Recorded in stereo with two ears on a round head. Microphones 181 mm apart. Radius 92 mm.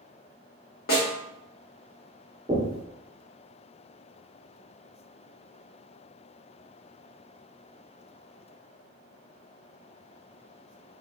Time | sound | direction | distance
0.9 | a snare drum | 50° left (ahead or behind) | 1.0 m
2.5 | knocking | 15° right (ahead or behind) | 1.0 m